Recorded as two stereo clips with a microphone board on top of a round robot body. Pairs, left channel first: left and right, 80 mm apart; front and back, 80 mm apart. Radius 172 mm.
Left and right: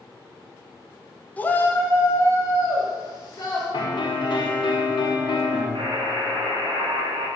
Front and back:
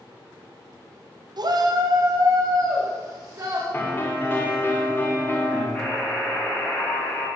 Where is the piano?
65° left, 1.2 m.